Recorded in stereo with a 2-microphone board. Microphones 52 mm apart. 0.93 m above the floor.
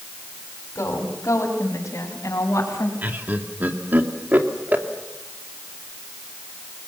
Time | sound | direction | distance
0.8 | a woman speaking | 65° left (ahead or behind) | 4.5 m
3.0 | laughter | 35° right (ahead or behind) | 2.5 m